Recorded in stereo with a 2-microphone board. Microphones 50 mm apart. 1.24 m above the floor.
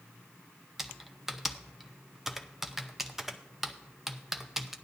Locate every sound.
0.8 s typing on a keyboard: 5° right (ahead or behind), 0.7 m